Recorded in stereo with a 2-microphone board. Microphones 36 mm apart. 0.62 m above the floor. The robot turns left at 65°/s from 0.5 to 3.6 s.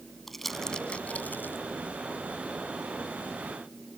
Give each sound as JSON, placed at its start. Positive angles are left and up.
{"t": 0.3, "sound": "crumpling", "side_deg": 10}